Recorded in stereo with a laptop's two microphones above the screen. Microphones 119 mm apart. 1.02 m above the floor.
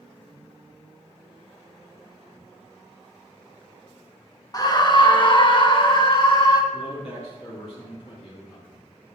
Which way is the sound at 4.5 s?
30° left (ahead or behind).